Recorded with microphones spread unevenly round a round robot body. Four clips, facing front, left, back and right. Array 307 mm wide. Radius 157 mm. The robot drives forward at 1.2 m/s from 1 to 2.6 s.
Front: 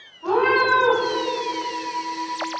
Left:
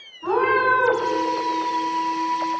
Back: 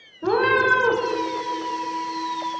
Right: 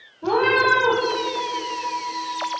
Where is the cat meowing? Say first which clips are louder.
Even, even; 160° right, 1.1 m.